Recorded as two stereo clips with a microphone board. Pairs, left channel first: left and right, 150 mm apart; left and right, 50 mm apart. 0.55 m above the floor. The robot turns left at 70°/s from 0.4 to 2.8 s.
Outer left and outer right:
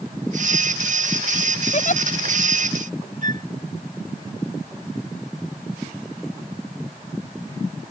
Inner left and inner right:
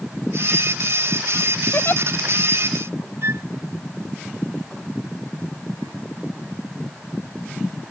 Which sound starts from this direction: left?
A giggle, at 1.7 s.